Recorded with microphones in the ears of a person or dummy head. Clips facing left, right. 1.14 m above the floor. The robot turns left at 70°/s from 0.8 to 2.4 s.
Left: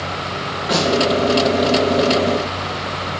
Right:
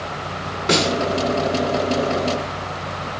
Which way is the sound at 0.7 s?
50° right (ahead or behind).